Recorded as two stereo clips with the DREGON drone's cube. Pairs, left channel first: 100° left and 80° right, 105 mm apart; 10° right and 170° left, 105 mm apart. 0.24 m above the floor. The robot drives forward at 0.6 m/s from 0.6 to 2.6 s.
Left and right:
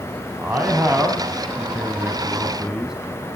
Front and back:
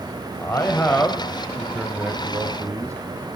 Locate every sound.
0.4 s a man speaking: 30° right, 1.3 m; by 3.0 s 155° right, 1.4 m